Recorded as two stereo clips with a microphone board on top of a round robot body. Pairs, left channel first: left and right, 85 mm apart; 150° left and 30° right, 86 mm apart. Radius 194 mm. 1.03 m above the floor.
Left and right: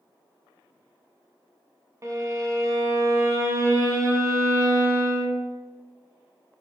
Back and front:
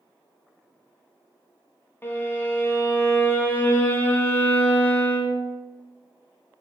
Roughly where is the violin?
Behind right.